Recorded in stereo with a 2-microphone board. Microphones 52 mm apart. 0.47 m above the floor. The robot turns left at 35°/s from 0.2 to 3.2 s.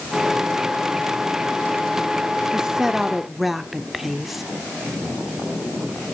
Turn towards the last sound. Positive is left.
turn(degrees=-5)  # may be behind; listen again after turning